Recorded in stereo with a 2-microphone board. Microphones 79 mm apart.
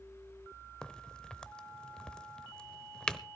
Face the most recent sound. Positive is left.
turn(degrees=10)  # may be behind; listen again after turning